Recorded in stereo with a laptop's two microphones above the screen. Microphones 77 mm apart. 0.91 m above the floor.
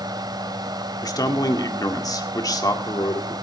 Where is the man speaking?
55° left (ahead or behind), 2.0 m.